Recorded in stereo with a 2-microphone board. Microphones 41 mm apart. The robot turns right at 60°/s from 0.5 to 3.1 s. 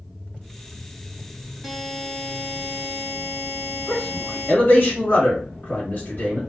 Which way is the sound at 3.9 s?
40° left (ahead or behind).